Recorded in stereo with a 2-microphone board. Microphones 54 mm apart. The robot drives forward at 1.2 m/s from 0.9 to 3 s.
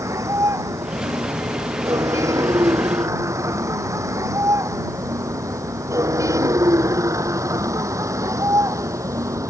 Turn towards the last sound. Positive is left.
turn(degrees=-85)